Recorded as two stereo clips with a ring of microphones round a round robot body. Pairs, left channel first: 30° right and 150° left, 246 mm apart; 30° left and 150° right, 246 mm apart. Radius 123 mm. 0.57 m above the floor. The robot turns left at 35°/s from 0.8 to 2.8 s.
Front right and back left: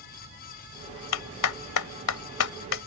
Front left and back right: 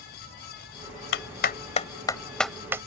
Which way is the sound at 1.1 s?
10° right.